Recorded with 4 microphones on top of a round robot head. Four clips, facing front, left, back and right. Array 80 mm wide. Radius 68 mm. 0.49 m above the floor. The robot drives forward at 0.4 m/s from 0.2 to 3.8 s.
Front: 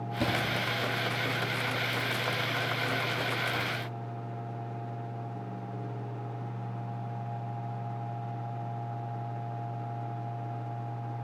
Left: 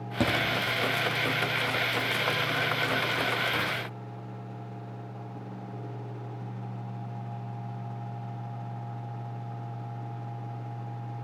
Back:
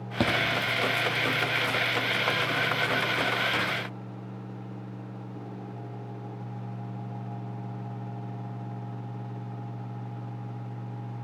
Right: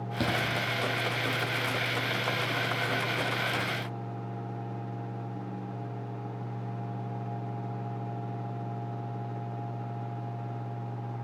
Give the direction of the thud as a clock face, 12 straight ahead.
7 o'clock.